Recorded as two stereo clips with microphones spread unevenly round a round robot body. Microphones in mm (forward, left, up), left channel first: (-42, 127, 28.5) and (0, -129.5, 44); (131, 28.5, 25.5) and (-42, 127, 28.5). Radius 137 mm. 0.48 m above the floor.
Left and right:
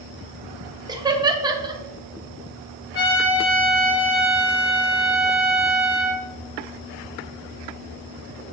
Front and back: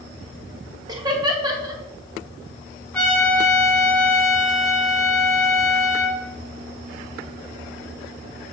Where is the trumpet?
60° left, 4 m.